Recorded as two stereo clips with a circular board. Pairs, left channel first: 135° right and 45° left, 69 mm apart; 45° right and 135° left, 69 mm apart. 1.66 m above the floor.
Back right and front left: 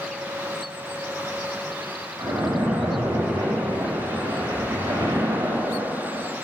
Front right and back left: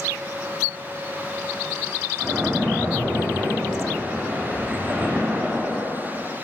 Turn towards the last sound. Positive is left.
turn(degrees=65)